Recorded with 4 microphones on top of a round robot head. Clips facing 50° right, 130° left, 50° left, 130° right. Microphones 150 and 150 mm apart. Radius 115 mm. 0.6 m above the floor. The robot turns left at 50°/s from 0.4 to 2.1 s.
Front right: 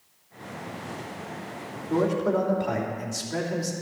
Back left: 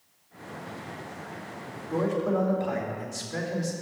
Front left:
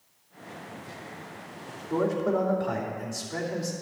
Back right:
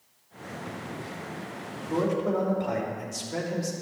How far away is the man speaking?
About 3 m.